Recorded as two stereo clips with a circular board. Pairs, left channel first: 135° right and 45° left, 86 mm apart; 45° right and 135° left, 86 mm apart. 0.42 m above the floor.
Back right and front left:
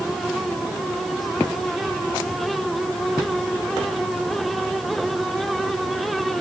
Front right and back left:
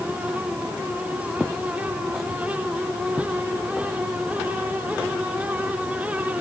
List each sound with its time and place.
Only background noise.